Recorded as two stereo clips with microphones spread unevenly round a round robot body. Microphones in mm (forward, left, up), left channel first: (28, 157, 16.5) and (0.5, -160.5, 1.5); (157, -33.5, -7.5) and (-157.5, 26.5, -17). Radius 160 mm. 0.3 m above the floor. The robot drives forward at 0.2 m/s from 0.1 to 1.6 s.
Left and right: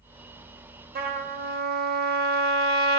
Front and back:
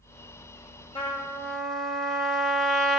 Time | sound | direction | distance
0.9 | a trumpet | 75° right | 0.6 m